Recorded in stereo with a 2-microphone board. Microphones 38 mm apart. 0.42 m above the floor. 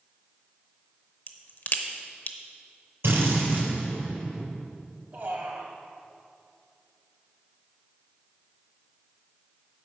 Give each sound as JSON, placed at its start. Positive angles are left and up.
{"t": 1.3, "sound": "a crack", "side_deg": 50, "distance_m": 0.8}
{"t": 3.0, "sound": "a drill", "side_deg": -75, "distance_m": 4.0}
{"t": 5.1, "sound": "a man speaking", "side_deg": -60, "distance_m": 2.0}